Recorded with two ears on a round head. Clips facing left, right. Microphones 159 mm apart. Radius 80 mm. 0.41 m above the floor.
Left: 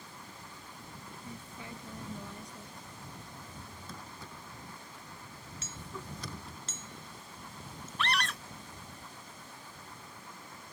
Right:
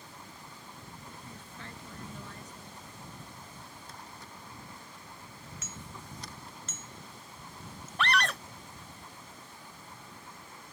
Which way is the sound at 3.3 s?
75° left (ahead or behind).